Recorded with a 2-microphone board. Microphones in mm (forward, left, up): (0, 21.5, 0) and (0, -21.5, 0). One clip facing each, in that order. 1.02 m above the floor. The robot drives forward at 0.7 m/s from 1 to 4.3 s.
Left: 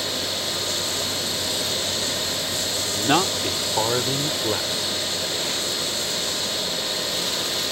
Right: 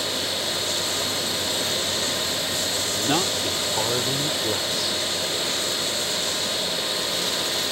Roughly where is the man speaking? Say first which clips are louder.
Left 4 dB; left.